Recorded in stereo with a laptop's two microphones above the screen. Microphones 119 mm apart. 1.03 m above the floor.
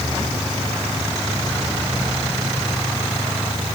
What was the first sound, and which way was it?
Only background noise.